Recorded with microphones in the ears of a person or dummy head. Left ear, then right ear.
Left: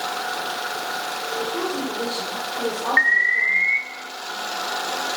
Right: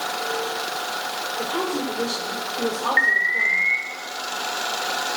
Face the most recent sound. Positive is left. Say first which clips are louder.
# left 2 dB
turn(degrees=10)  # may be behind; listen again after turning